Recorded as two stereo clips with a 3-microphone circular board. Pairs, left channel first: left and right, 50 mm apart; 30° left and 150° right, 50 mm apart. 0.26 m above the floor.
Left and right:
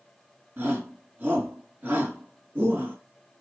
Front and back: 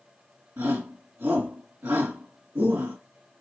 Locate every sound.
0.6 s a shout: 140° right, 3 m